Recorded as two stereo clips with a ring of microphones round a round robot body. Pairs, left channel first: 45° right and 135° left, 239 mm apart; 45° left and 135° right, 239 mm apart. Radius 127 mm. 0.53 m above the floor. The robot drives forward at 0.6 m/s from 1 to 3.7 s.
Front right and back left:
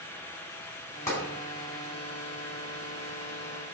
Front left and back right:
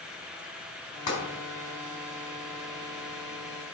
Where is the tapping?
35° left, 4 m.